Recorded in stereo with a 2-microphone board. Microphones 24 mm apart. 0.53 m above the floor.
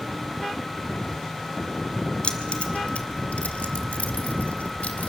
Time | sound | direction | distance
2.2 | keys jangling | 55° left (ahead or behind) | 1.7 m